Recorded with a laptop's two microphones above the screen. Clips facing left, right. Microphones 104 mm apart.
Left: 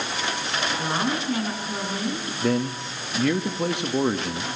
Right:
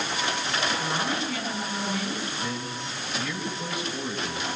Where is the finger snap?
I don't hear a finger snap.